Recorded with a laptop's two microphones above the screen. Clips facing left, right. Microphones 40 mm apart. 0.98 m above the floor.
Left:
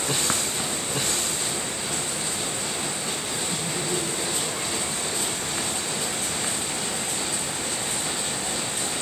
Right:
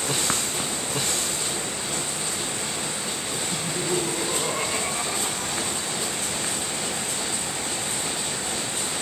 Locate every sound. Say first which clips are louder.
3.5 s laughter: right 3 dB; 10° right (ahead or behind); by 6.1 s 55° right (ahead or behind)